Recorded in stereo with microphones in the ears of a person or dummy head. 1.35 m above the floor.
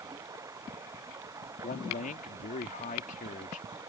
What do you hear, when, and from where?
0.0 s running water: 15° right (ahead or behind)
1.6 s a man speaking: 40° left (ahead or behind)